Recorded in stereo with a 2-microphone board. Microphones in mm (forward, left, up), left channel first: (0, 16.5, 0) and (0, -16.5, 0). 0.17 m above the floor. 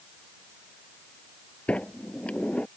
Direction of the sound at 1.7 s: 40° left (ahead or behind).